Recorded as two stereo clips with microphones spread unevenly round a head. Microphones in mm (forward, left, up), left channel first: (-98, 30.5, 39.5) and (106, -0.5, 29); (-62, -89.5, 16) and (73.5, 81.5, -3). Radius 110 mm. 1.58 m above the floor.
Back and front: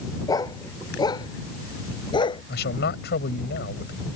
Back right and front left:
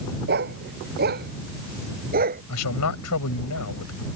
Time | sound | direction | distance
0.3 | a dog barking | 100° left | ?
2.5 | a man speaking | 145° right | ?